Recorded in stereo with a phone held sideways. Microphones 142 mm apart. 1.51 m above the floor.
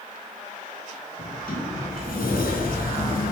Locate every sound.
1.2 s a sliding door: 90° left, 2.5 m